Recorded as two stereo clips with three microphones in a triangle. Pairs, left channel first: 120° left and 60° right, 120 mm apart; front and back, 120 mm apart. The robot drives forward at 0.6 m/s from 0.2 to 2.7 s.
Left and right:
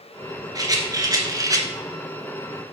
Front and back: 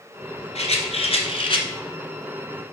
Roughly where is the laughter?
No laughter in this recording.